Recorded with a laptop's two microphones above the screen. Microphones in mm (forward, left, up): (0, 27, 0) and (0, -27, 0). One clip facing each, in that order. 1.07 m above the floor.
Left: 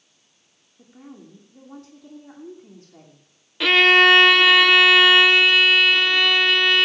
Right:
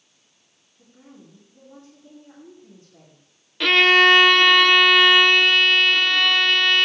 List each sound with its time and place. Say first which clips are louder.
0.8 s a woman speaking: left 5 dB; 80° left, 3 m
3.6 s a violin: left 1 dB; 5° left (ahead or behind), 0.9 m